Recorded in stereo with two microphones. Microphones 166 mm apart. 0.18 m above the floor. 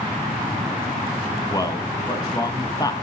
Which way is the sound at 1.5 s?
25° left (ahead or behind).